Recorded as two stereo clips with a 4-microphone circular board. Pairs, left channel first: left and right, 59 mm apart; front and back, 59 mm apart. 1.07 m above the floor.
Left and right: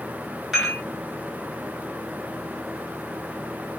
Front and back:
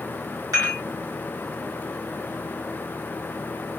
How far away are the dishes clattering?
About 1.3 m.